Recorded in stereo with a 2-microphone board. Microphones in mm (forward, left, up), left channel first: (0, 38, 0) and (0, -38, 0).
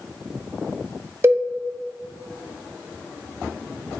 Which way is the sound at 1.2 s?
35° right (ahead or behind).